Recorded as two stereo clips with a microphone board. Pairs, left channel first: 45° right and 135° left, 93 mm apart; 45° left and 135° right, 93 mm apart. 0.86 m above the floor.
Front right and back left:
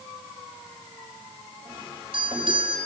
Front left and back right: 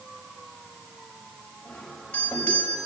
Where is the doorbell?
125° left, 5.5 m.